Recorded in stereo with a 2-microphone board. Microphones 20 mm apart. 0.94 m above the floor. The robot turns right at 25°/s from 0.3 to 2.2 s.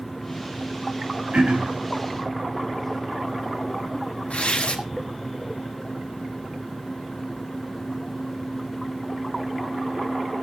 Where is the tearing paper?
70° left (ahead or behind), 2.5 m.